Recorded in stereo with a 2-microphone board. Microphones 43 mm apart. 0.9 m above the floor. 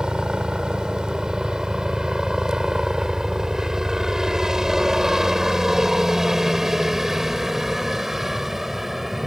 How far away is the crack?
No crack in this recording.